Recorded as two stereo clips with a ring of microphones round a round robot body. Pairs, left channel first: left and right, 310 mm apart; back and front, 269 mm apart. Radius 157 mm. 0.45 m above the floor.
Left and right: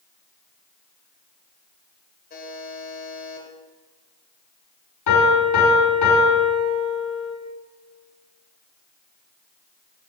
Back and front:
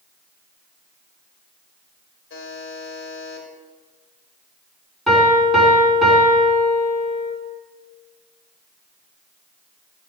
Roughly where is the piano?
Left.